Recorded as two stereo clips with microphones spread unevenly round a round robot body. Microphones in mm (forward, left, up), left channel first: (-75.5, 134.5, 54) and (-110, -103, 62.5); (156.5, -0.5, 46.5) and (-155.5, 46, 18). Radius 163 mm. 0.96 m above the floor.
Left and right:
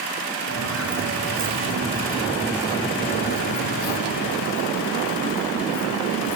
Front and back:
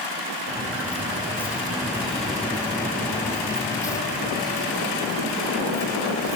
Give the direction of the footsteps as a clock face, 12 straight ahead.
3 o'clock.